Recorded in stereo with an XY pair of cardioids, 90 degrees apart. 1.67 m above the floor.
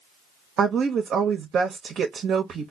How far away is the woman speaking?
About 0.8 m.